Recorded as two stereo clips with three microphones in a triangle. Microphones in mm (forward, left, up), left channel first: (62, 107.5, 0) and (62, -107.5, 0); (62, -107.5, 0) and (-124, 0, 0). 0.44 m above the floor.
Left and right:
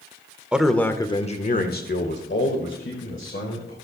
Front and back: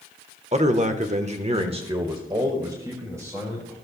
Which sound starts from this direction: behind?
A man speaking, at 0.5 s.